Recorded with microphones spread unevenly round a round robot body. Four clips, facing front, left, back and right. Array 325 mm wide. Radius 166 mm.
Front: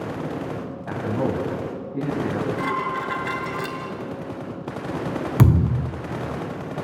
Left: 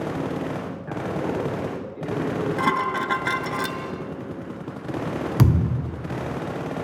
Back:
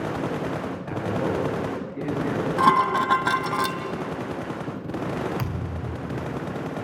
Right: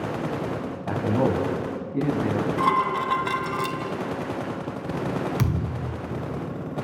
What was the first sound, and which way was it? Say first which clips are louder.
A man speaking: right 5 dB, front 2 dB; 75° right.